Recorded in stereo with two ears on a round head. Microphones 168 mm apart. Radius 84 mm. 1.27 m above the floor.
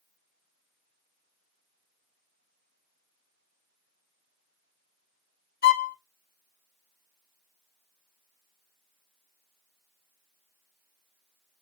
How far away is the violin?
About 1.2 m.